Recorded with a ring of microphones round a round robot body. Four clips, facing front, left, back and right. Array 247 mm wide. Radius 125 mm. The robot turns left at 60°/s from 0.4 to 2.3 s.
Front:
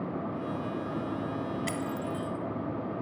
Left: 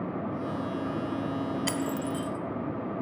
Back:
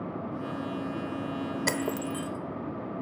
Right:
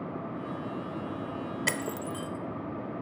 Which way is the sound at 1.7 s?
160° right.